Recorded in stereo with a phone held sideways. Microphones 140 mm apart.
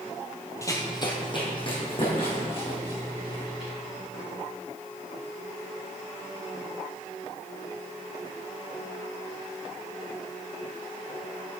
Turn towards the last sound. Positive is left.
turn(degrees=40)  # may be behind; listen again after turning